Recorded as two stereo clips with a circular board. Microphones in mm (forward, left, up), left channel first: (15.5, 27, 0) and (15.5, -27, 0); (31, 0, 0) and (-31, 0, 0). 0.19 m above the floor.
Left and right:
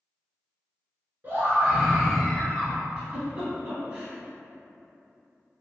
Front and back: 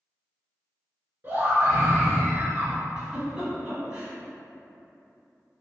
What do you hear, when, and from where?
1.2 s a scream: 135° right, 2.0 m; by 2.8 s 145° left, 1.1 m
3.0 s a giggle: 125° right, 1.3 m